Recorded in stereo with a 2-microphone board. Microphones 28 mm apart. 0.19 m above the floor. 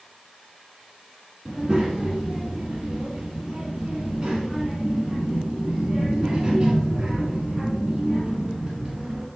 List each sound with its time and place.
1.4 s a child speaking: 15° right (ahead or behind), 1.4 m